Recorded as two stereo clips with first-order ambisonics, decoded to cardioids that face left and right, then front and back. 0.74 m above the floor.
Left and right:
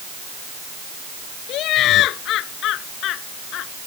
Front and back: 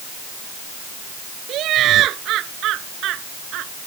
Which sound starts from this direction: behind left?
Laughter, at 1.5 s.